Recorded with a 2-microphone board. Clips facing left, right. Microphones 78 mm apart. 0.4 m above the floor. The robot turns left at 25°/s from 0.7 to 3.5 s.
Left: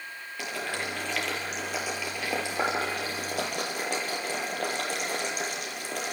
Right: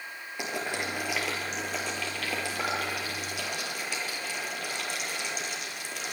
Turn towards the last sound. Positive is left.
turn(degrees=50)  # may be behind; listen again after turning